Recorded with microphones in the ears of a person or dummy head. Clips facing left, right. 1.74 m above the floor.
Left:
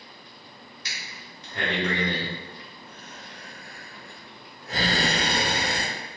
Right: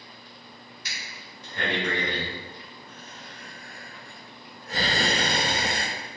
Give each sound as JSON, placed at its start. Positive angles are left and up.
{"t": 0.8, "sound": "breathing", "side_deg": 65, "distance_m": 1.5}